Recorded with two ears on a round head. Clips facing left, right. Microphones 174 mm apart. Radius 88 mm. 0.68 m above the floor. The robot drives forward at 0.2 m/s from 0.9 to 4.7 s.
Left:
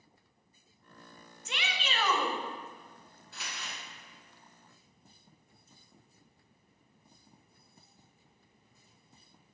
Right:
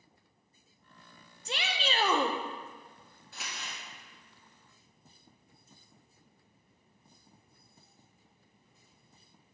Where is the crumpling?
Centre (ahead or behind), 2.5 m.